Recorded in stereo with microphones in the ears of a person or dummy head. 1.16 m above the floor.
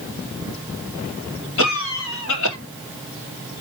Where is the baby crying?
No baby crying in this recording.